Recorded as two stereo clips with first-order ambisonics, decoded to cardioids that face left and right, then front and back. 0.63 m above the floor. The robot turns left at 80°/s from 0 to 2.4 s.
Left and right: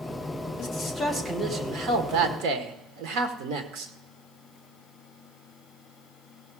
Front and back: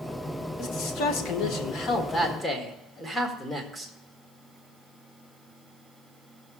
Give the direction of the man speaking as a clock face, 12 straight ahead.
10 o'clock.